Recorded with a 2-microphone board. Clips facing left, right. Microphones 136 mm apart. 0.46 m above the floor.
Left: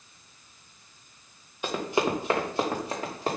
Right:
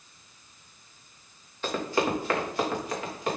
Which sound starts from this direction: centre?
Running footsteps, at 1.6 s.